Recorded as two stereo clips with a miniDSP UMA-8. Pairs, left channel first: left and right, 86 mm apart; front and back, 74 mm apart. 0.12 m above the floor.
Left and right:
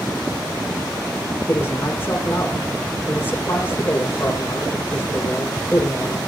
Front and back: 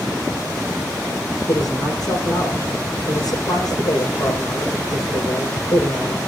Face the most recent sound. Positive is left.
turn(degrees=25)